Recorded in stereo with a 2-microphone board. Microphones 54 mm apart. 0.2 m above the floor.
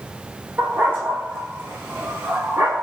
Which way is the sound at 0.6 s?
35° right (ahead or behind).